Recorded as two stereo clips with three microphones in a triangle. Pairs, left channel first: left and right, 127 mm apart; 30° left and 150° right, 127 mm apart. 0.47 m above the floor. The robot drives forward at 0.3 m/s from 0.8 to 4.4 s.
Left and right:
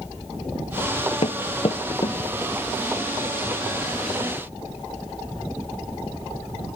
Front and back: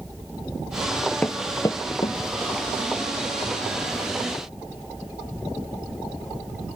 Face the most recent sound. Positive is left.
turn(degrees=125)